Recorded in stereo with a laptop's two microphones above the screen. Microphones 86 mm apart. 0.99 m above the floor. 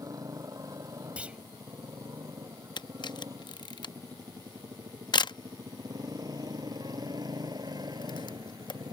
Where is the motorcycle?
40° right (ahead or behind); by 8.9 s 55° right (ahead or behind).